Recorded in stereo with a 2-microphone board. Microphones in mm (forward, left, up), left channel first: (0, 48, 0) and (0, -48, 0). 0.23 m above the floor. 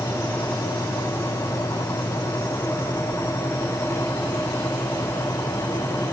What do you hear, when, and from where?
Only background noise.